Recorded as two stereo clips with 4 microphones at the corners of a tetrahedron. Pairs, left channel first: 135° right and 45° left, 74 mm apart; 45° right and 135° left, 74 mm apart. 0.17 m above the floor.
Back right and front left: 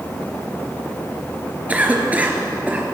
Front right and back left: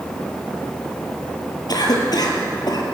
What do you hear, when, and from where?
1.7 s a cough: 25° right, 2.5 m